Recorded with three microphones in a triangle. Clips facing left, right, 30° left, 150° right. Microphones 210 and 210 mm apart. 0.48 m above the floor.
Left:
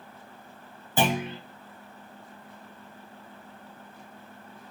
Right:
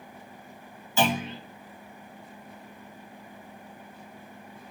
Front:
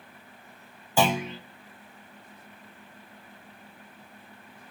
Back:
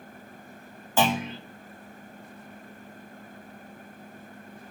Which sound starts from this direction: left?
A clunk, at 1.0 s.